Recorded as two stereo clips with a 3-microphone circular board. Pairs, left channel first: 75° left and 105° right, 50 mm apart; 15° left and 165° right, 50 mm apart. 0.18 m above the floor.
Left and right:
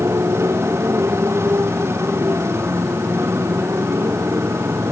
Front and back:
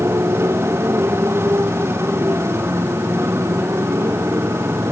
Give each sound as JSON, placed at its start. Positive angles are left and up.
{"t": 0.0, "sound": "a motorcycle", "azimuth_deg": -130}